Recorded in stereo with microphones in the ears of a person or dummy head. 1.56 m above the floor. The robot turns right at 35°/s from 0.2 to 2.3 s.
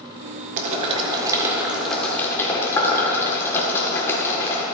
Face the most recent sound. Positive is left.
turn(degrees=15)  # may be behind; listen again after turning